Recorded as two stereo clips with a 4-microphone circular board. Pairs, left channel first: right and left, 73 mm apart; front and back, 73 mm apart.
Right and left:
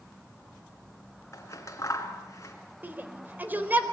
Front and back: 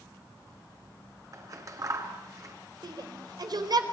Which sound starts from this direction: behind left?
A shout, at 2.8 s.